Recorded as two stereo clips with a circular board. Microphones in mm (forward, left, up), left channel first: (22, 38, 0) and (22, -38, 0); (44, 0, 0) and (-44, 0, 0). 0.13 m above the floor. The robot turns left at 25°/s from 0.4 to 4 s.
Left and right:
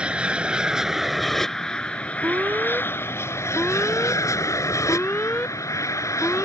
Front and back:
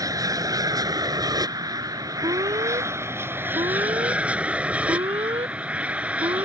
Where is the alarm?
150° right; by 6.5 s 165° left.